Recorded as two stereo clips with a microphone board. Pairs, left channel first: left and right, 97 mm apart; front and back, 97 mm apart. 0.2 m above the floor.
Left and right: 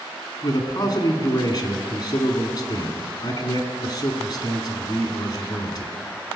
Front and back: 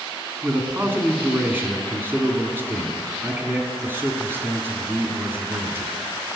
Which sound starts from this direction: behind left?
A man speaking, at 0.4 s.